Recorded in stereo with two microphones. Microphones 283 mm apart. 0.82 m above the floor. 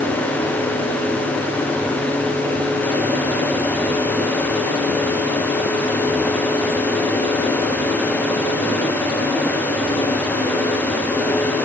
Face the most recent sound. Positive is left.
No sound to turn to.